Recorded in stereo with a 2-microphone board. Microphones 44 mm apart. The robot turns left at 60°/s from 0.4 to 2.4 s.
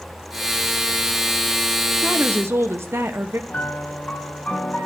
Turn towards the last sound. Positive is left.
turn(degrees=40)  # may be behind; listen again after turning